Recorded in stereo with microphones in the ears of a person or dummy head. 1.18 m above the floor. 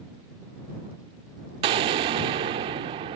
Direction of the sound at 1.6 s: 40° right (ahead or behind).